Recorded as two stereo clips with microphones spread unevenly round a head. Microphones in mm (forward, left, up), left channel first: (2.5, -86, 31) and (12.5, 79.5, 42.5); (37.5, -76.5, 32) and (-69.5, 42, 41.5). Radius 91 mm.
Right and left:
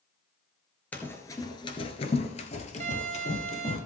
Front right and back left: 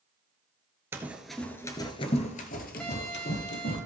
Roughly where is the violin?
Ahead left.